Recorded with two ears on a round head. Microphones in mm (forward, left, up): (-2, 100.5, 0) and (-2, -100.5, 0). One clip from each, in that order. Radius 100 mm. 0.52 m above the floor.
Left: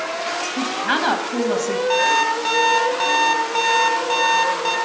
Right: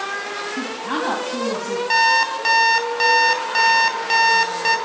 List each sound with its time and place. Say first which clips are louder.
0.6 s a woman speaking: left 5 dB; 70° left (ahead or behind), 3 m
1.9 s an alarm clock: right 2 dB; 30° right (ahead or behind), 1.6 m